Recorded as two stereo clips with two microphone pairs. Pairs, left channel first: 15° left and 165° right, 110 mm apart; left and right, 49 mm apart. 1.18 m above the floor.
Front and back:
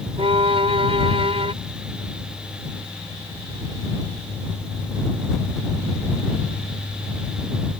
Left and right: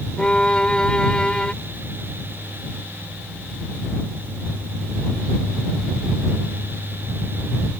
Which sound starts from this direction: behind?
A violin, at 0.2 s.